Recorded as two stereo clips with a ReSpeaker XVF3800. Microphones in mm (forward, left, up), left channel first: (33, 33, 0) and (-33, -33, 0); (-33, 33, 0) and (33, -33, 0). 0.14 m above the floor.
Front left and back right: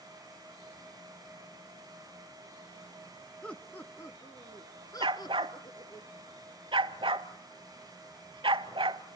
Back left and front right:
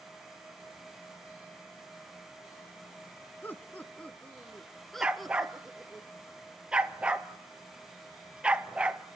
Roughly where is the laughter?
Left.